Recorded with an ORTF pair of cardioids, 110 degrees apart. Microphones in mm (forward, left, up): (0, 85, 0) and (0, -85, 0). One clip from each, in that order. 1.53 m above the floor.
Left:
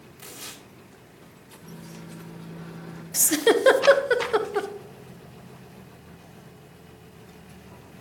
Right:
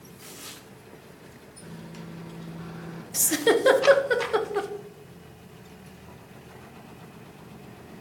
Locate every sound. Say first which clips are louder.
0.2 s tearing paper: left 2 dB; 35° left, 3 m
1.6 s a microwave: right 1 dB; 10° right, 1.3 m
3.1 s a giggle: left 2 dB; 15° left, 0.9 m